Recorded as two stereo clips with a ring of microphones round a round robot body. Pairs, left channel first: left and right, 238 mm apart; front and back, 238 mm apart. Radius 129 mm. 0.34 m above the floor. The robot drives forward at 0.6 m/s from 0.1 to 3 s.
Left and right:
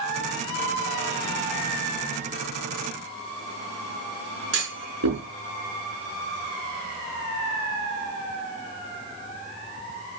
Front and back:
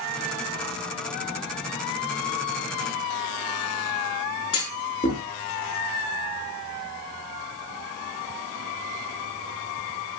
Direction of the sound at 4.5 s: 70° right.